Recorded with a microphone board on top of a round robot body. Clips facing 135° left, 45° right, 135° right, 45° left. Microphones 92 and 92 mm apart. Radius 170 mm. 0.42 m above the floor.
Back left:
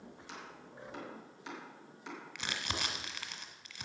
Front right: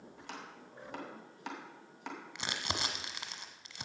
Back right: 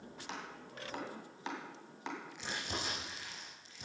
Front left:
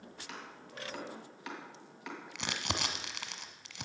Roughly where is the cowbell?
No cowbell in this recording.